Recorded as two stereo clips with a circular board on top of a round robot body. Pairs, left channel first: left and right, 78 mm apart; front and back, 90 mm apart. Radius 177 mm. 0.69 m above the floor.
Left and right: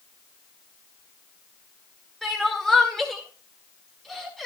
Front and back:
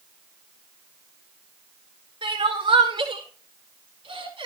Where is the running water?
I don't hear running water.